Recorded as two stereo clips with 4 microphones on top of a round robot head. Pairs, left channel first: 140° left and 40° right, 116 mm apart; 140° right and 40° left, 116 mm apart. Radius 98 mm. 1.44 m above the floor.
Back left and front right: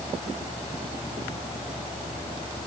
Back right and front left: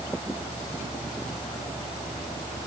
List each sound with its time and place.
Only background noise.